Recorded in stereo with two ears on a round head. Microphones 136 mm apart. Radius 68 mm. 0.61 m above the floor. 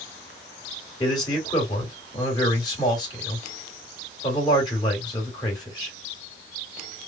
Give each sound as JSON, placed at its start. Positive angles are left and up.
{"t": 1.0, "sound": "a man speaking", "side_deg": 30, "distance_m": 2.0}